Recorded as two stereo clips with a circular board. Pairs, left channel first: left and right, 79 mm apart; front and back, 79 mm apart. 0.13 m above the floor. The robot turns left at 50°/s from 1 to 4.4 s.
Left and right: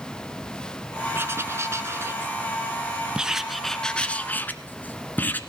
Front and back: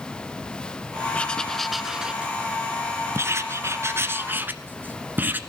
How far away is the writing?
About 1.4 m.